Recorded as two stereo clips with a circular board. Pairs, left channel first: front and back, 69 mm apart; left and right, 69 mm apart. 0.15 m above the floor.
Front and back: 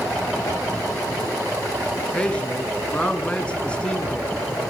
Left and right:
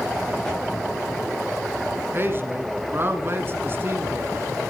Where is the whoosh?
10° left, 7.5 m.